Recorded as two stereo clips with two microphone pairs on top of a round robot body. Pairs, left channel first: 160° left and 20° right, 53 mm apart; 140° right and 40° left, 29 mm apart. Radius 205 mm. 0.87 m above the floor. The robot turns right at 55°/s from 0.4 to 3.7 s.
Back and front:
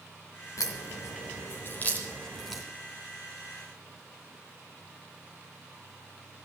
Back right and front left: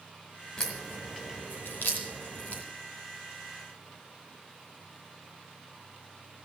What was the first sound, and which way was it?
A crack, 150° left.